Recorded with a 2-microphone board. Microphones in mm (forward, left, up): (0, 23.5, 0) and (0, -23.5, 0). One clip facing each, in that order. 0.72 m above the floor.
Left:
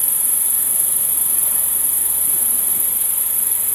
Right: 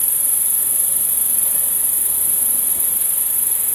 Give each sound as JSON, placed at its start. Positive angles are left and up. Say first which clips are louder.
{"t": 0.0, "sound": "an insect", "louder": "left 1 dB", "side_deg": 30, "distance_m": 7.5}